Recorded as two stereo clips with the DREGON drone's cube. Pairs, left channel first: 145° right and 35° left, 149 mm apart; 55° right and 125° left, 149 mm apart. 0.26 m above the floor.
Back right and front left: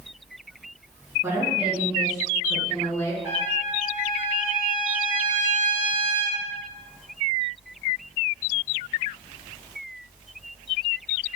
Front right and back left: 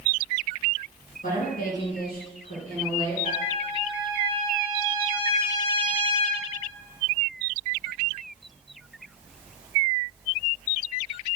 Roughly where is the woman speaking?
Ahead right.